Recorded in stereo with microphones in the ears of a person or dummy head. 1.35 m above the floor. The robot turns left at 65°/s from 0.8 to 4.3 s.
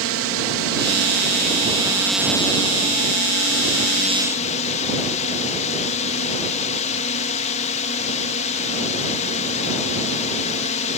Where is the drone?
90° right; by 11.0 s 40° left.